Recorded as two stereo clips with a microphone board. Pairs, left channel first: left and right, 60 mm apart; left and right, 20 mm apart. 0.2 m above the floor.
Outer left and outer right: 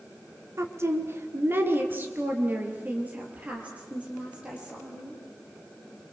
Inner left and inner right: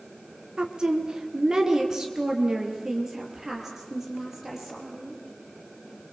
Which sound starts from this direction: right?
A woman speaking, at 0.6 s.